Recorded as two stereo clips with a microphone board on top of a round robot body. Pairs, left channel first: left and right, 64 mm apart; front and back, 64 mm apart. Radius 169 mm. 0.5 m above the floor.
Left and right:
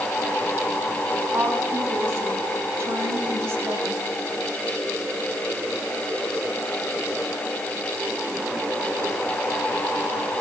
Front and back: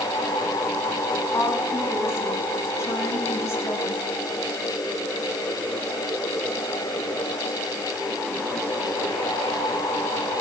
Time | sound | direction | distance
1.3 | a woman speaking | 40° right | 6.5 m